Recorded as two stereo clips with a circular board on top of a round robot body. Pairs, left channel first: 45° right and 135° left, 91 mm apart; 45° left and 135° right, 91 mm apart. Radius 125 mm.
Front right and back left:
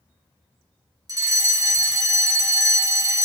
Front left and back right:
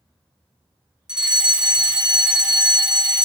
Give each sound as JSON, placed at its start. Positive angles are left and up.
{"t": 1.1, "sound": "a fire alarm", "azimuth_deg": 150, "distance_m": 2.5}